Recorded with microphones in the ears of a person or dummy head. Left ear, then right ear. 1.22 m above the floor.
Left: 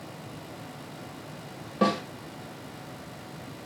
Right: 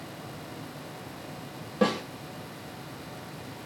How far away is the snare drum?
About 2 m.